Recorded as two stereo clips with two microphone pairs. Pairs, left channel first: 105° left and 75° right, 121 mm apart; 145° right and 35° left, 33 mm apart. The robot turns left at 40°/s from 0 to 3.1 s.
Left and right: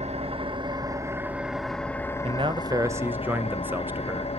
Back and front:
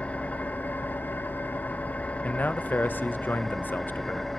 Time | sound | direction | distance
0.0 | an engine running | 100° right | 1.3 m
2.2 | a man speaking | 115° right | 0.9 m